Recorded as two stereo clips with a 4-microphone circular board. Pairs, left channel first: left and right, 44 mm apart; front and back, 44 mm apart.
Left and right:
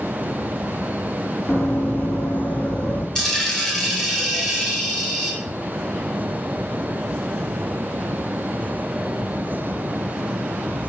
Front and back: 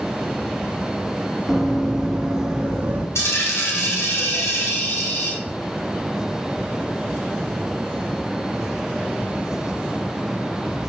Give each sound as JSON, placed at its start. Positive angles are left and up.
{"t": 1.5, "sound": "running footsteps", "azimuth_deg": 90, "distance_m": 2.0}
{"t": 3.1, "sound": "a dropped coin", "azimuth_deg": 10, "distance_m": 3.0}